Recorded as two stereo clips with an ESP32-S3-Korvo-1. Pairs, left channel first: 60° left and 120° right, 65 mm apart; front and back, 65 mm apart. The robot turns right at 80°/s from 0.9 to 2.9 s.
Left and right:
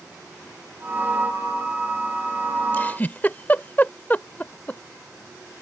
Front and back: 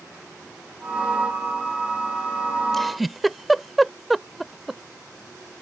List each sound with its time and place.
2.7 s a giggle: 80° left; by 4.8 s 90° left